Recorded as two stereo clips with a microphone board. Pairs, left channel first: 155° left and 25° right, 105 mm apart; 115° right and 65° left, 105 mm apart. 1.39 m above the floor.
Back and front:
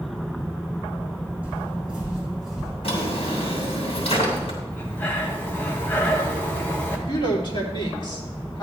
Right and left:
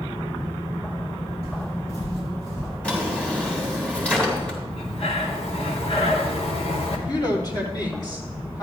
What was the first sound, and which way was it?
Footsteps, 100° right.